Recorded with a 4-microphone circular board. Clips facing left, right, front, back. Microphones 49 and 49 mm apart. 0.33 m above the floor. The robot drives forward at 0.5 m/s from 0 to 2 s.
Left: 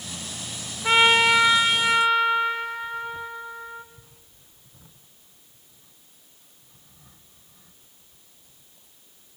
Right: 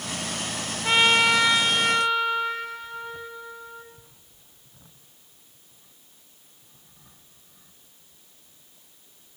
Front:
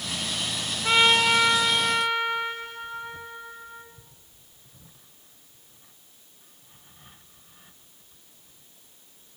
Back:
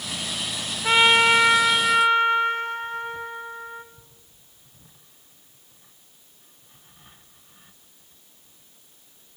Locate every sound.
0.8 s a trumpet: 155° left, 0.6 m; by 3.8 s 175° left, 0.9 m